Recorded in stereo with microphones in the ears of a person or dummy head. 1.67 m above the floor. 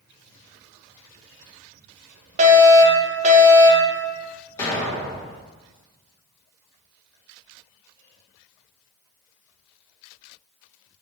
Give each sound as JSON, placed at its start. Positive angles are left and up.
{"t": 2.4, "sound": "a fire alarm", "side_deg": -40, "distance_m": 1.4}
{"t": 4.6, "sound": "an explosion", "side_deg": 20, "distance_m": 2.0}